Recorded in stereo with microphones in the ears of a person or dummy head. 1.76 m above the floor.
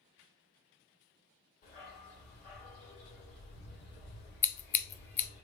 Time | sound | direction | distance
1.6 | a dog barking | 40° left (ahead or behind) | 3 m
4.4 | scissors | 10° left (ahead or behind) | 0.6 m